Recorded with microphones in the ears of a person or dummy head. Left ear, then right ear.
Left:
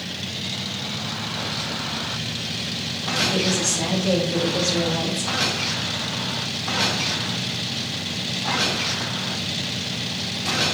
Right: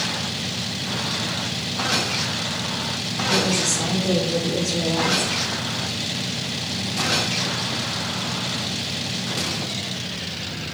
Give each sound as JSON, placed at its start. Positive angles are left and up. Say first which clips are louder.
{"t": 3.3, "sound": "a woman speaking", "louder": "right 1 dB", "side_deg": 75, "distance_m": 3.5}